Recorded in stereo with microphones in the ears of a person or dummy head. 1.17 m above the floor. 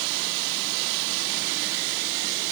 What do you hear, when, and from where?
Only background noise.